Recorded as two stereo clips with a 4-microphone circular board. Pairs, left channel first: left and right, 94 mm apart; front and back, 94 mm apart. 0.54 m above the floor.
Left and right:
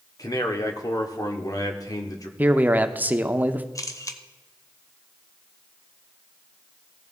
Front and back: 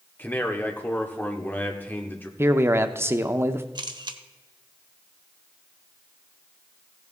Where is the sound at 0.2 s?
60° left, 1.4 m.